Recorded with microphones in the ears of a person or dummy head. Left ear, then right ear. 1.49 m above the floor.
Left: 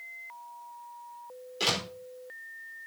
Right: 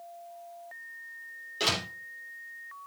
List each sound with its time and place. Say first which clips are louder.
1.6 s a door slam: even; centre (ahead or behind), 3.5 m